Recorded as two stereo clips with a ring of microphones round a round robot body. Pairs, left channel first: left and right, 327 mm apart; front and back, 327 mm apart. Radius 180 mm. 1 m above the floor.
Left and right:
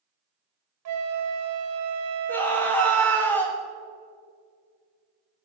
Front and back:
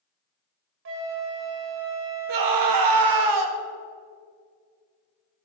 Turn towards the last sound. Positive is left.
turn(degrees=175)